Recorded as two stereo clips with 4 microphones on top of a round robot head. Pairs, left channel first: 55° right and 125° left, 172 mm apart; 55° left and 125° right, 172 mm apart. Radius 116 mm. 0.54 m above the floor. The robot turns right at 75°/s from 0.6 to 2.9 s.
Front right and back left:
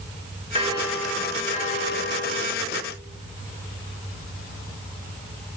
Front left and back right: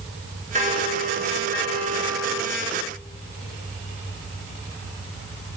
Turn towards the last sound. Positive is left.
turn(degrees=-5)